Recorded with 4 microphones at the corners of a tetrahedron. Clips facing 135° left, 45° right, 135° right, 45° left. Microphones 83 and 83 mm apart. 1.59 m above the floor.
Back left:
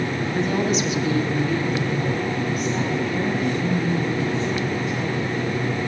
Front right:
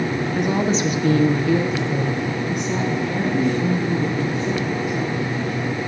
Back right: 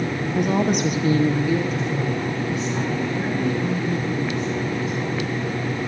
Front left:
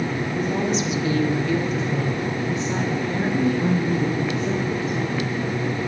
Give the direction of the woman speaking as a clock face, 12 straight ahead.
4 o'clock.